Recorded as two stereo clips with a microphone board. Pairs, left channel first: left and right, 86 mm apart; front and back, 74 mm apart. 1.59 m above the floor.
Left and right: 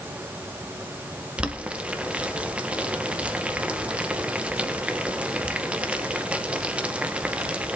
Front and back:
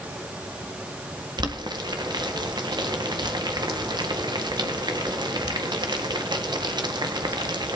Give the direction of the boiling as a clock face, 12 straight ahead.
6 o'clock.